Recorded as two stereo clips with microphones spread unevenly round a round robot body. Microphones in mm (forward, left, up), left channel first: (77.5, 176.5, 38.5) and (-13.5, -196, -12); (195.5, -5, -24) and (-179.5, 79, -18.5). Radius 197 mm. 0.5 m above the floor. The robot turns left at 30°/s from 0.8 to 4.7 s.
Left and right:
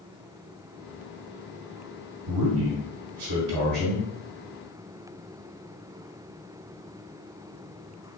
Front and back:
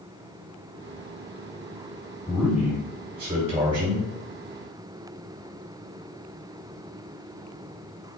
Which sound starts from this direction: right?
A man speaking, at 2.3 s.